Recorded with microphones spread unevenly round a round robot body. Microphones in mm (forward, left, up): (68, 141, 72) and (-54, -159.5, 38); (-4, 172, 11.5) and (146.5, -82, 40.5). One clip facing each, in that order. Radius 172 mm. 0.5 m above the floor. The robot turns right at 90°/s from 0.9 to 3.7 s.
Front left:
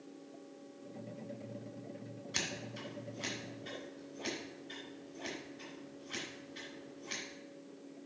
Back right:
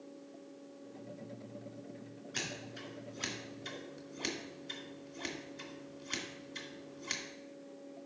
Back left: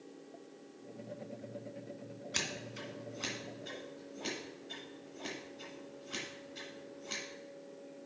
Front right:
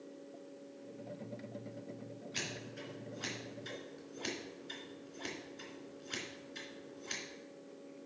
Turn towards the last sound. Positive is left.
turn(degrees=-135)